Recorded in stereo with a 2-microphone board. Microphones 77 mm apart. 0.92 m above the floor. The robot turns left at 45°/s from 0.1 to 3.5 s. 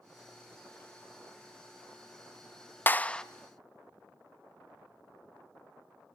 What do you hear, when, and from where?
2.9 s a clap: 25° left (ahead or behind), 0.5 m; by 3.2 s 10° left (ahead or behind), 0.5 m